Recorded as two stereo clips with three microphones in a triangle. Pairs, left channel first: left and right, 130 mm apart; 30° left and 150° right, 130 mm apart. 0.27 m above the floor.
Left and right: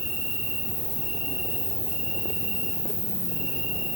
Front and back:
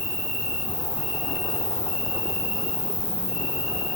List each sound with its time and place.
0.0 s an insect: 125° left, 8.5 m